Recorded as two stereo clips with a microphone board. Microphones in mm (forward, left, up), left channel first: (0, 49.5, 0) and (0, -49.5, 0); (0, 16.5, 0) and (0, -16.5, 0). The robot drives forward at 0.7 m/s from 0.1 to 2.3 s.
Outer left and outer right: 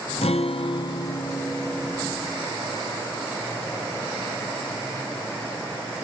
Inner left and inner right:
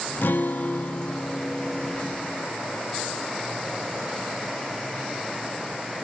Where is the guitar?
80° left, 0.5 m; by 2.5 s 20° left (ahead or behind), 1.6 m.